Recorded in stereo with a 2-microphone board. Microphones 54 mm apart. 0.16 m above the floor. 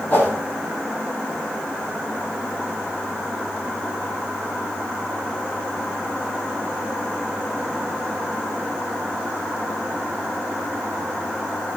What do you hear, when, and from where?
0.1 s a whoosh: 30° left (ahead or behind), 5 m